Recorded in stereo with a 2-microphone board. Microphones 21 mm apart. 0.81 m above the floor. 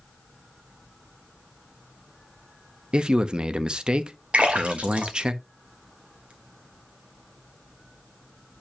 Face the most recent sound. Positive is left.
turn(degrees=-75)  # may be behind; listen again after turning